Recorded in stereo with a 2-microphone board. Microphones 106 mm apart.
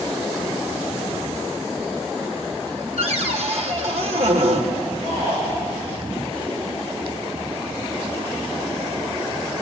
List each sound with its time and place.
3.0 s a cupboard door: 70° right (ahead or behind), 2 m
5.0 s a shout: 85° right, 9.5 m